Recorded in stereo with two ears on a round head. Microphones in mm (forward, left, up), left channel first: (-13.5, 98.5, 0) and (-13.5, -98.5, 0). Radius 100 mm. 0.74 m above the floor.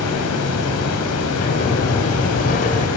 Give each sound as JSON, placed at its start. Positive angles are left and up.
{"t": 0.0, "sound": "running water", "side_deg": 85, "distance_m": 4.0}
{"t": 1.4, "sound": "a sliding door", "side_deg": 35, "distance_m": 2.5}